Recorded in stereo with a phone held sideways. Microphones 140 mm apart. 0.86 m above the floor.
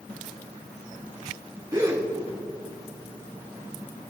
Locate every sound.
1.7 s a gasp: 25° right (ahead or behind), 2.5 m